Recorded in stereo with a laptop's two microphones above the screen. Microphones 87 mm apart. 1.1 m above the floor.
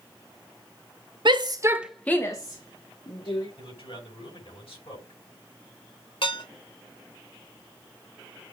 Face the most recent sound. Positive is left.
turn(degrees=70)  # may be behind; listen again after turning